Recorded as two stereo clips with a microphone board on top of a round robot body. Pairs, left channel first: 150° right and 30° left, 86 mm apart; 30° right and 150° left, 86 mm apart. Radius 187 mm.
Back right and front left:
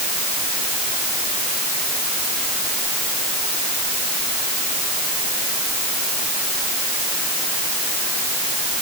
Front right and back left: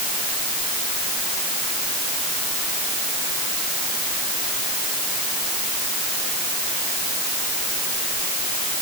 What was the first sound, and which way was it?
Only background noise.